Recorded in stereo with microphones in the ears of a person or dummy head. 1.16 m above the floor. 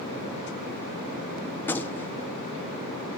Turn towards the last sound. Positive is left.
turn(degrees=10)  # may be behind; listen again after turning